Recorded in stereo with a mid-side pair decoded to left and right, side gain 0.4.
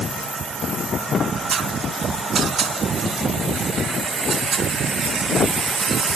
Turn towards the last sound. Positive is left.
No sound to turn to.